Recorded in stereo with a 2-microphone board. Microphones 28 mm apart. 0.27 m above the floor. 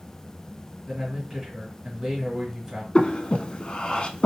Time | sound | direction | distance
0.9 | a man speaking | 15° right (ahead or behind) | 1.4 m
3.0 | breathing | 40° left (ahead or behind) | 0.5 m